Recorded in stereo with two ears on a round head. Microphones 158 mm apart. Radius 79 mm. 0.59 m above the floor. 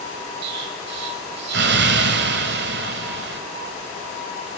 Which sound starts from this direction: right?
An explosion, at 0.4 s.